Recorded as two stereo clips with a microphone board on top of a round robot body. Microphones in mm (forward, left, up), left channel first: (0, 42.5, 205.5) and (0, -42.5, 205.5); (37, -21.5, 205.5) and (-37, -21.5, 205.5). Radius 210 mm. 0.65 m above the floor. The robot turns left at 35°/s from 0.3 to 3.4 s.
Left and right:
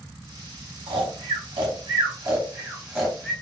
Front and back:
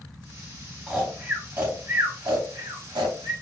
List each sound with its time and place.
0.9 s snoring: 95° right, 0.7 m; by 3.3 s 175° left, 0.7 m